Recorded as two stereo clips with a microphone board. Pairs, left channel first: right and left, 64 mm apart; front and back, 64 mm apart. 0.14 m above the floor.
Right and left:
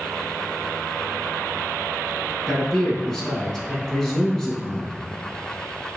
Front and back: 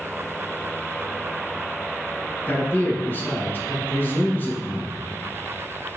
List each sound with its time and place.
2.5 s a man speaking: 10° right, 1.3 m